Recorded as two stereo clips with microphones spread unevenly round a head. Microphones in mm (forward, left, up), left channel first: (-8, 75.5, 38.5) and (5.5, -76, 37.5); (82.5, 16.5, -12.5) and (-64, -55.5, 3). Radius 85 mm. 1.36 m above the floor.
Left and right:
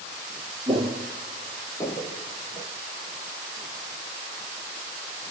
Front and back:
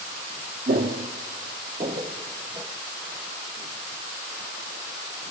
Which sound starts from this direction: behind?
Footsteps, at 0.7 s.